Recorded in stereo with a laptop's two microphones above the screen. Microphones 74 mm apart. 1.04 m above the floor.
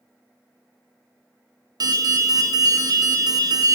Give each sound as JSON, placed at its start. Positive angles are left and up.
{"t": 1.8, "sound": "an alarm", "side_deg": -60, "distance_m": 0.6}